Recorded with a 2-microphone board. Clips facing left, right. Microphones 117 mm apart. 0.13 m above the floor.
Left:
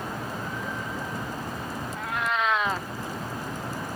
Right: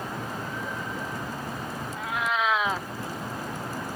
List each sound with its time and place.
1.9 s a cat meowing: centre (ahead or behind)